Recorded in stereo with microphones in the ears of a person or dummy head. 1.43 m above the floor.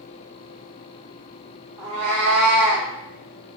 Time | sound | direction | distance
1.8 | a cat meowing | 15° right (ahead or behind) | 0.7 m